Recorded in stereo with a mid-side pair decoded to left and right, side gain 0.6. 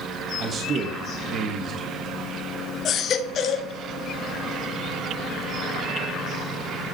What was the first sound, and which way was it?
A man speaking, 40° right.